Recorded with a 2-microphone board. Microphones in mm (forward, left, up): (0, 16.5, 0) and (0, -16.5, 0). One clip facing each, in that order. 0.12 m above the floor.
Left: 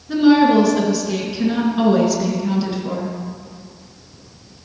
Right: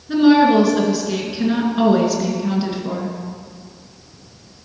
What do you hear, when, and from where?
0.1 s a woman speaking: 10° right (ahead or behind), 1.6 m